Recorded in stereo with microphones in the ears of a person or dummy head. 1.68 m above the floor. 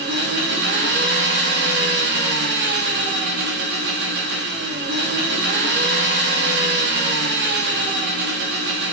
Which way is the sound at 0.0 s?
60° right (ahead or behind).